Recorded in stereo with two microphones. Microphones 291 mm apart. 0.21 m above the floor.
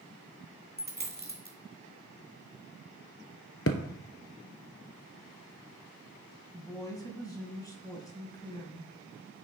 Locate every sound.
0.8 s a dropped coin: 30° right (ahead or behind), 1.6 m
3.7 s a thud: 45° left (ahead or behind), 0.8 m
6.5 s a woman speaking: 10° left (ahead or behind), 1.3 m